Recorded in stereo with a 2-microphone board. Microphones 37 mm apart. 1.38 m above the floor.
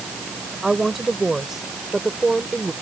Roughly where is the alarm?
No alarm in this recording.